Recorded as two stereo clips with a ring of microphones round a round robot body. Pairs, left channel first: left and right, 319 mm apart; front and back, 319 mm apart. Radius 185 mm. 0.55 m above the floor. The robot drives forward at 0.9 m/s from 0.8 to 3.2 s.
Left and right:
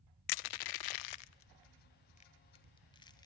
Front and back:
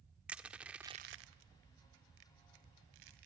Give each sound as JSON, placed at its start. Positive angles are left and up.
{"t": 0.3, "sound": "crushing", "azimuth_deg": 95, "distance_m": 0.5}